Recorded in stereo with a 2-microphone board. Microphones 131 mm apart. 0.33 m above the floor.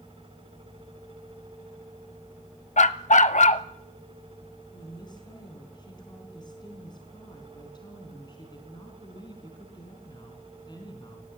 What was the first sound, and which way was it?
A dog barking, 70° left (ahead or behind).